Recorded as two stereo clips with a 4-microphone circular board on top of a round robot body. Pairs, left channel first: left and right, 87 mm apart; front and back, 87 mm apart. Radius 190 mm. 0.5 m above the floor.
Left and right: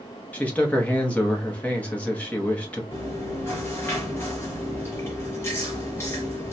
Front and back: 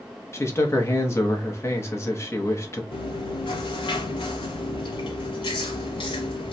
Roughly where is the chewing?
Ahead left.